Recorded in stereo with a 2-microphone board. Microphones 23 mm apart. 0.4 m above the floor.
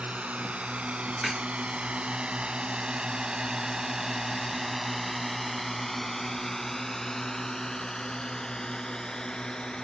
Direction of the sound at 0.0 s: 75° right (ahead or behind).